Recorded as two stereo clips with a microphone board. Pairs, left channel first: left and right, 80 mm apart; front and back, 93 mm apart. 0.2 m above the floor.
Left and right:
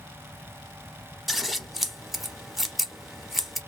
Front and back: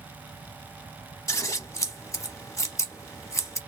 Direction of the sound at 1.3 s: 5° right.